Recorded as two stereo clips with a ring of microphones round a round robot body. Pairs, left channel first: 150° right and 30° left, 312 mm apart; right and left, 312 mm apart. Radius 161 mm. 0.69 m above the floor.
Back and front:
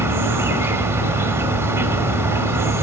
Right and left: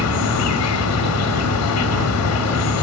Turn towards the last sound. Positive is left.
turn(degrees=-50)